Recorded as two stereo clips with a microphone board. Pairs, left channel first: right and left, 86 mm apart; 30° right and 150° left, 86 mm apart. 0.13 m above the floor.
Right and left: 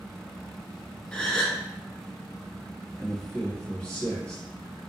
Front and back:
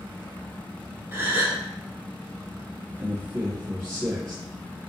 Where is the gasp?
160° right, 0.9 m.